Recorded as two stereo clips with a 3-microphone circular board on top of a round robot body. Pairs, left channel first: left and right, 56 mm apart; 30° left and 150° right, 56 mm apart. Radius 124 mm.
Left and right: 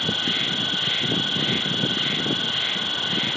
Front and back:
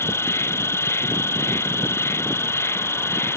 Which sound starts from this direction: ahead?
An insect, at 0.0 s.